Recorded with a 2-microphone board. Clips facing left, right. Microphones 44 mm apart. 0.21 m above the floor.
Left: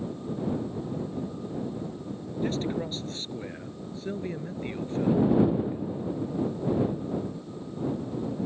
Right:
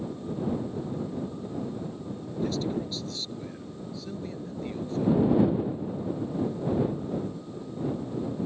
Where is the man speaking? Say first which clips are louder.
Even; 40° left (ahead or behind).